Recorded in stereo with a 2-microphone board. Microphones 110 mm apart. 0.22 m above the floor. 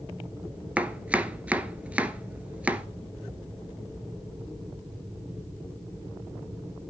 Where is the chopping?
10° right (ahead or behind), 0.6 m.